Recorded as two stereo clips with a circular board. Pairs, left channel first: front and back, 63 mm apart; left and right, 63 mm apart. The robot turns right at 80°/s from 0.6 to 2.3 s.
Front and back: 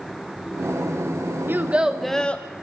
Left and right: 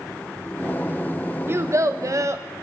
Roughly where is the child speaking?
Behind right.